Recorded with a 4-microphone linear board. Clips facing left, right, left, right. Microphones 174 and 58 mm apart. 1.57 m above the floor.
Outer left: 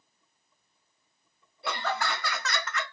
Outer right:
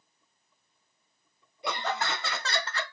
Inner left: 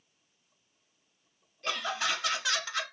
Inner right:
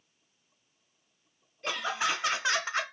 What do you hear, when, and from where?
1.6 s laughter: 15° right (ahead or behind), 0.7 m; by 2.9 s 35° right (ahead or behind), 0.5 m